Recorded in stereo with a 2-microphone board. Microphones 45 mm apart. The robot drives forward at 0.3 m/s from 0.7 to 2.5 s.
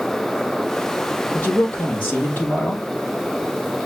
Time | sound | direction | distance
1.3 | a man speaking | 40° left (ahead or behind) | 3 m